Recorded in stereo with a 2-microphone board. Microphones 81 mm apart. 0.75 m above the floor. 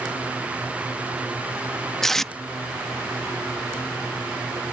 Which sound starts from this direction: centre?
Tape being pulled, at 2.0 s.